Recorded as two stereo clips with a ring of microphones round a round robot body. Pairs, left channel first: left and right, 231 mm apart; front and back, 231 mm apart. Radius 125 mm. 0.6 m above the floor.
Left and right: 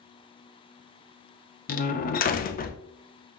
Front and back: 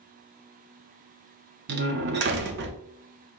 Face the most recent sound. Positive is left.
turn(degrees=140)